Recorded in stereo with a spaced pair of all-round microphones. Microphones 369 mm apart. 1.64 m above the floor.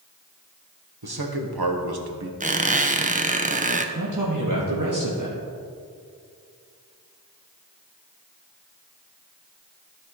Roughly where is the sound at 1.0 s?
Right.